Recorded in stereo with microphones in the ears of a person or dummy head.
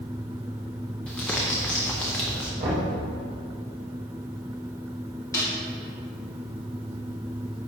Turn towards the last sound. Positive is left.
turn(degrees=15)  # may be behind; listen again after turning